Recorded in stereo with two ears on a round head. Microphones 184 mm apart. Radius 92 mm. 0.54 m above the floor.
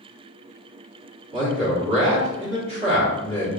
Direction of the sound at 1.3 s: 35° right (ahead or behind).